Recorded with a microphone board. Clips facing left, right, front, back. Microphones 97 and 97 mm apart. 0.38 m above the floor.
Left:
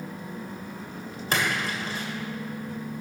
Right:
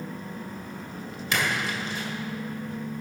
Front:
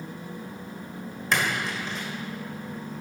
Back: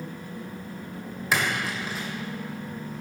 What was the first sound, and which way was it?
A splash, 95° left.